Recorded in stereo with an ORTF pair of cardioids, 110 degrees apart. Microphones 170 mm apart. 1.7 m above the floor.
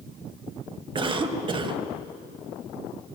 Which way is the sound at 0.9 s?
30° right.